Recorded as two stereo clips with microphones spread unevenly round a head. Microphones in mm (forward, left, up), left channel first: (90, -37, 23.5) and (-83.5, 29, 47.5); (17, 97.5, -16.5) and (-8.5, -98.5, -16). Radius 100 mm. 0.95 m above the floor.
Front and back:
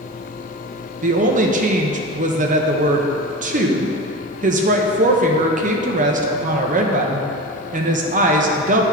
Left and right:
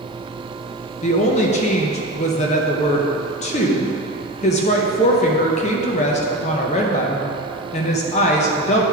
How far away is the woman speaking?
About 0.7 m.